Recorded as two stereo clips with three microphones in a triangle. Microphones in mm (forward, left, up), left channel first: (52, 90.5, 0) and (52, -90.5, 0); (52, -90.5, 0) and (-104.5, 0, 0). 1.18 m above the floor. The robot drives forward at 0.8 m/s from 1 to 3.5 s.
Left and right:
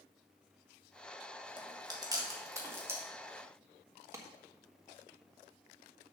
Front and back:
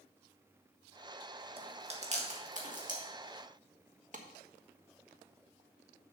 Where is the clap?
165° right, 1.1 m.